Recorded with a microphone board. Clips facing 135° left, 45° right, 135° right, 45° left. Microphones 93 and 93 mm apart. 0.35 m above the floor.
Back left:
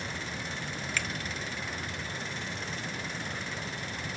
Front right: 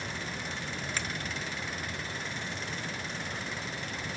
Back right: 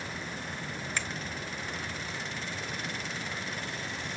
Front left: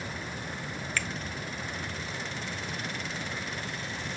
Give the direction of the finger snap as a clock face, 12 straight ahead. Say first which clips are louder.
Back left 2 dB, front left 2 dB; 3 o'clock.